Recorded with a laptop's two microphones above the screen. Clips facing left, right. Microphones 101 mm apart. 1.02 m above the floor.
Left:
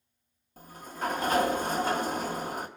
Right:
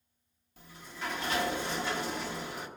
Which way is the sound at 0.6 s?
40° left (ahead or behind).